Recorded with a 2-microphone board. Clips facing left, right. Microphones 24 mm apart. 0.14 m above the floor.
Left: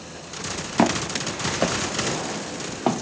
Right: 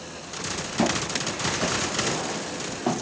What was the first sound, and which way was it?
Footsteps, 50° left (ahead or behind).